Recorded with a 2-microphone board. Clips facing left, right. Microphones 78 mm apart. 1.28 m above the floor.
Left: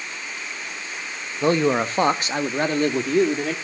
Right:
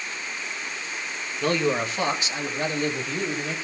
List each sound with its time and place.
1.4 s a man speaking: 20° left (ahead or behind), 1.2 m; by 3.5 s 65° left (ahead or behind), 3 m